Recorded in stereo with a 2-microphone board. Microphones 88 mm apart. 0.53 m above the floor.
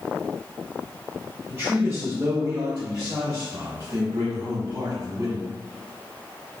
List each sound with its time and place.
1.5 s a man speaking: 30° right (ahead or behind), 1.5 m; by 5.5 s 60° right (ahead or behind), 2.5 m